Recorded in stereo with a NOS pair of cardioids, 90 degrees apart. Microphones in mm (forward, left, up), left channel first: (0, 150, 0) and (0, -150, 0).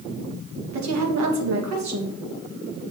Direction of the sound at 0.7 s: 65° right.